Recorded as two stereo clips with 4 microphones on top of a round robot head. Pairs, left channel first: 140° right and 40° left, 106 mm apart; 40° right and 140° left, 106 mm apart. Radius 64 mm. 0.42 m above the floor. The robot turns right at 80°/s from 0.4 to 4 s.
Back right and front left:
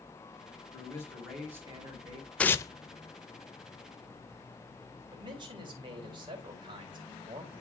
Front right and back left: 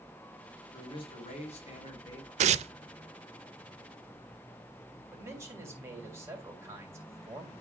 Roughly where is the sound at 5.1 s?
Left.